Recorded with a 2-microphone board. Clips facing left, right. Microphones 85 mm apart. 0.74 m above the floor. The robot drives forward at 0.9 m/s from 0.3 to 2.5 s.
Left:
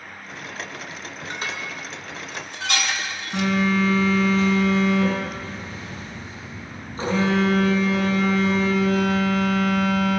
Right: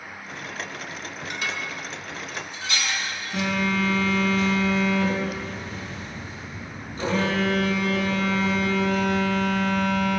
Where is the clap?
No clap in this recording.